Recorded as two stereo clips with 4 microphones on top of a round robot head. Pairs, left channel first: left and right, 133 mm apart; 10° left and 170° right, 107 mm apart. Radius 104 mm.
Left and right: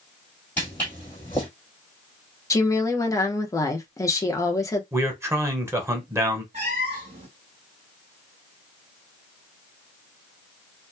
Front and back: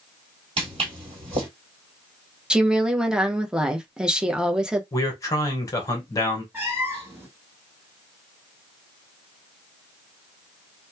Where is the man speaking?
30° right, 1.0 m.